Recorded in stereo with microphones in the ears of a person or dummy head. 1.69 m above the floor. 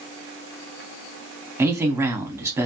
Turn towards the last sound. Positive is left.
turn(degrees=-20)  # may be behind; listen again after turning